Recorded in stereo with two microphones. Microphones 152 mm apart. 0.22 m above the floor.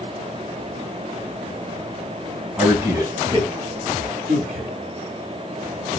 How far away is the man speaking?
About 1.3 m.